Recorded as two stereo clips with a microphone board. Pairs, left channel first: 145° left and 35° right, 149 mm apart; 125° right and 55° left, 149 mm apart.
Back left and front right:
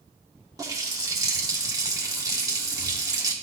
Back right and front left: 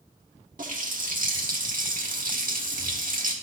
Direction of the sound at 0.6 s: 35° left.